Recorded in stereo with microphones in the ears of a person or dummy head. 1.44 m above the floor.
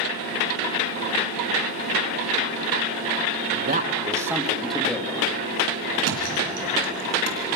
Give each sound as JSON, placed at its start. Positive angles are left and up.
{"t": 3.5, "sound": "a man speaking", "side_deg": -55, "distance_m": 1.3}
{"t": 6.0, "sound": "a thud", "side_deg": -60, "distance_m": 2.5}